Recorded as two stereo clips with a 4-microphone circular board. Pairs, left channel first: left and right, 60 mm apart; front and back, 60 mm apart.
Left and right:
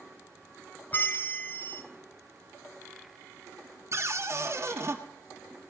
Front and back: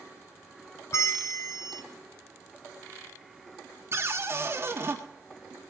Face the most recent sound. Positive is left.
turn(degrees=-135)